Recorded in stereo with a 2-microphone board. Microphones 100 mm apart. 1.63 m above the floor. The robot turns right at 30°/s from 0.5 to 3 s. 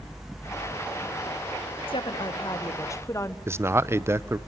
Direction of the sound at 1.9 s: 115° left.